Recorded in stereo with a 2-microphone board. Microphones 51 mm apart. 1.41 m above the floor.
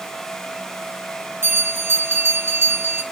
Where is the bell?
50° right (ahead or behind), 4 m.